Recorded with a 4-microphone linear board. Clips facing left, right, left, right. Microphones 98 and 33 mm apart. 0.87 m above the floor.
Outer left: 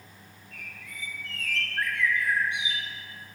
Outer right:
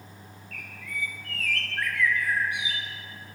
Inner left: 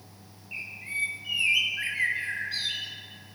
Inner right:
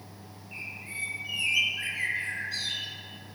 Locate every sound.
0.5 s a bird: 25° left (ahead or behind), 0.6 m